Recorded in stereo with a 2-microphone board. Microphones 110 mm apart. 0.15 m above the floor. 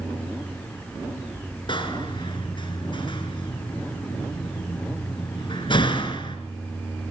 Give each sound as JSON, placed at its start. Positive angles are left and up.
{"t": 1.7, "sound": "a door slam", "side_deg": 45, "distance_m": 1.7}